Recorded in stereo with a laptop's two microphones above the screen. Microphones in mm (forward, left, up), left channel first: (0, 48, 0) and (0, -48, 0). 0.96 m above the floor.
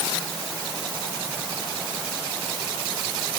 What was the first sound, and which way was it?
Only background noise.